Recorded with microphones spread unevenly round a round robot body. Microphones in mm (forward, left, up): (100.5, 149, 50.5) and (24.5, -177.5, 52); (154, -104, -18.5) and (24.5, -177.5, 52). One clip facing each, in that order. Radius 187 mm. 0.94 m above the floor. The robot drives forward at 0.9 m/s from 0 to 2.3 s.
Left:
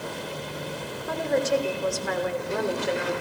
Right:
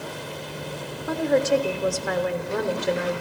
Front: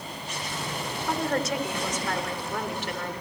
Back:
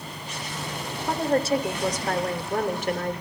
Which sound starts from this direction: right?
A woman speaking, at 1.1 s.